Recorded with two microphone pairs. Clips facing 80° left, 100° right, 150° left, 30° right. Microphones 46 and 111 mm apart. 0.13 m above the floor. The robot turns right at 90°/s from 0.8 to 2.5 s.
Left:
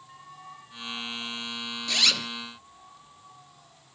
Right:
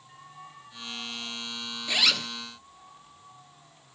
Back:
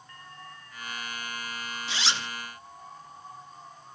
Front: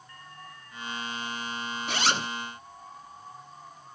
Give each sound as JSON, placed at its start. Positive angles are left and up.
{"t": 1.9, "sound": "a zipper", "azimuth_deg": -35, "distance_m": 0.5}